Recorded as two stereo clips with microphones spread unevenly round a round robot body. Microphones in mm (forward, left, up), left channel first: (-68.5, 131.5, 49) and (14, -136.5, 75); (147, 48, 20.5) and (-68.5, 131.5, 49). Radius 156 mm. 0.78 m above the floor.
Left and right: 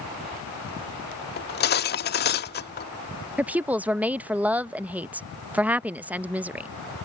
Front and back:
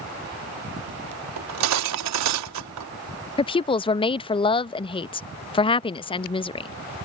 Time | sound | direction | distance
1.4 | cutlery clinking | 165° left | ?
3.4 | a woman speaking | 15° left | ?